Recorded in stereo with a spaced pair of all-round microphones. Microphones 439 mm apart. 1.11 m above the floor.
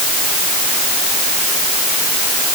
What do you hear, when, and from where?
Only background noise.